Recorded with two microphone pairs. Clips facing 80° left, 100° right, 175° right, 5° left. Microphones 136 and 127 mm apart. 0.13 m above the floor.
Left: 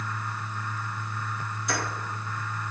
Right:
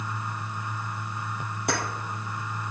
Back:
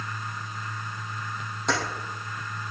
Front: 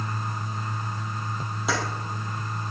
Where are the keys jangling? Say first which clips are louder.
Right 3 dB, even; 80° right, 3 m.